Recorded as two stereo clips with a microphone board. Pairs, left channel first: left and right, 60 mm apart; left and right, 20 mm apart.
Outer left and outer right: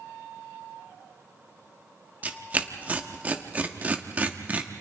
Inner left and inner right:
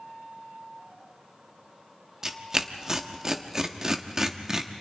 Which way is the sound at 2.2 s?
25° right (ahead or behind).